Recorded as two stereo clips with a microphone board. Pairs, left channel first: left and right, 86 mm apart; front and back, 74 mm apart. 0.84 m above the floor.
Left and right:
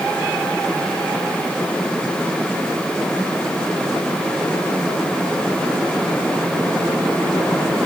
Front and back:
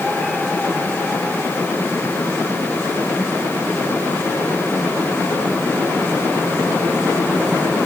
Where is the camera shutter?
No camera shutter in this recording.